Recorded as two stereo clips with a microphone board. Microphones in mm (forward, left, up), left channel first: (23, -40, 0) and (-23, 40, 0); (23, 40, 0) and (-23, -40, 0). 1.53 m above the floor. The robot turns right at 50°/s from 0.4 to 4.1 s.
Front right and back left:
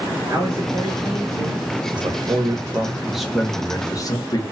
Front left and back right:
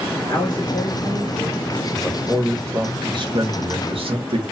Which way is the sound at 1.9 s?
145° left.